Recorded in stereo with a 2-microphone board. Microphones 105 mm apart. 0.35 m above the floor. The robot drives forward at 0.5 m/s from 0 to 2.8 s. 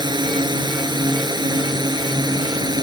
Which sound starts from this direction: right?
A drone, at 0.0 s.